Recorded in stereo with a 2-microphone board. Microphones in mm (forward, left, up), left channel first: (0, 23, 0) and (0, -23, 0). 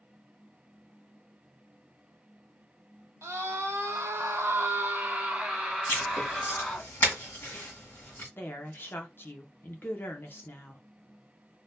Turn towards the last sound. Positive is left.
turn(degrees=50)  # may be behind; listen again after turning